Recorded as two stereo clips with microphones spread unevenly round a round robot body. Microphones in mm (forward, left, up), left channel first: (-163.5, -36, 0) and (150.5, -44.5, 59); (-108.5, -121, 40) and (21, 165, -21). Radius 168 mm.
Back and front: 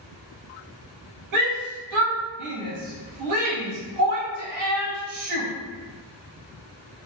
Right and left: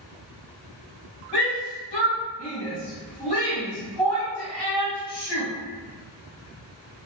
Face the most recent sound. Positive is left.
turn(degrees=-20)